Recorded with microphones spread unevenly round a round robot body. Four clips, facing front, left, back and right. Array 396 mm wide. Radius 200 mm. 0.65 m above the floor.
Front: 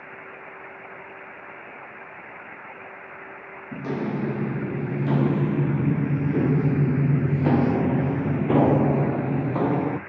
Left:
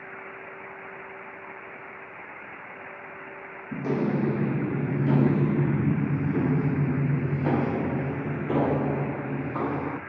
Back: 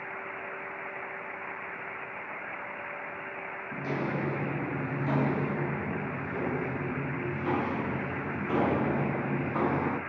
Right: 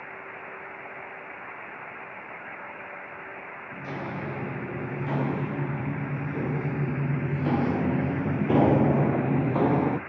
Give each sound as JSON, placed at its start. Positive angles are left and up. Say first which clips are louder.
{"t": 3.7, "sound": "footsteps", "louder": "left 9 dB, front 5 dB", "azimuth_deg": 70, "distance_m": 1.9}